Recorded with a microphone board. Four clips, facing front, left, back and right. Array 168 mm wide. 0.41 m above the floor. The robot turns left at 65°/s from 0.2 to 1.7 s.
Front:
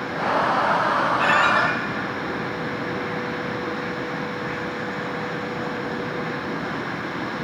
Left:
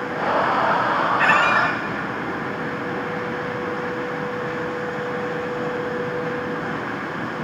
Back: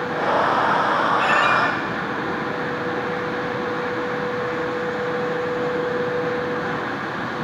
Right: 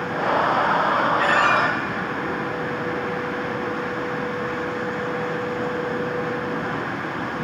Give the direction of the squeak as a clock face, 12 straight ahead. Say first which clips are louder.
Left 1 dB, back 1 dB; 9 o'clock.